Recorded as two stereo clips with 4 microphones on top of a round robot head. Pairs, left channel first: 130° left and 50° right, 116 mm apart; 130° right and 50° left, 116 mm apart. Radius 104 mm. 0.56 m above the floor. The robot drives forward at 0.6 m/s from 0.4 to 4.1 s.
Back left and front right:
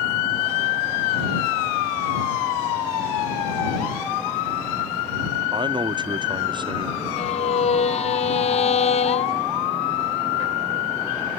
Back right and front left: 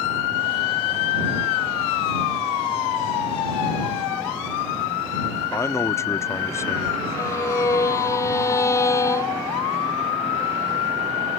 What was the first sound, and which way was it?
A man speaking, 75° right.